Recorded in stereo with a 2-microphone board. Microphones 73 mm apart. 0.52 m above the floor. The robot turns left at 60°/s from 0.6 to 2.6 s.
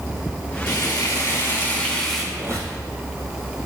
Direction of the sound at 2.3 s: 35° right (ahead or behind).